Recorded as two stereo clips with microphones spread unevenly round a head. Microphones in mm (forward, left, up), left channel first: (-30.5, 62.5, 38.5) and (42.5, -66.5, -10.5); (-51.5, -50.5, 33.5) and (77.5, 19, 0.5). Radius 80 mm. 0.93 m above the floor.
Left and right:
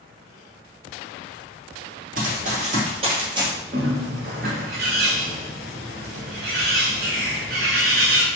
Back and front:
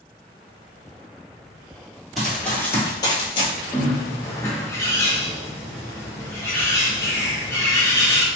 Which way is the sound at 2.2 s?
80° right.